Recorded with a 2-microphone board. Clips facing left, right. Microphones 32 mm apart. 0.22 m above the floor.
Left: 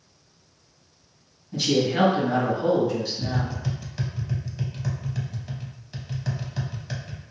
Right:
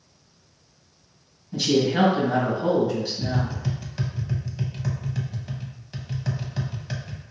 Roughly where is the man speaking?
Centre.